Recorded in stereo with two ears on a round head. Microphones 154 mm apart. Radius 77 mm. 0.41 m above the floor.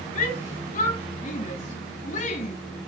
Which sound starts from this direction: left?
A shout, at 0.1 s.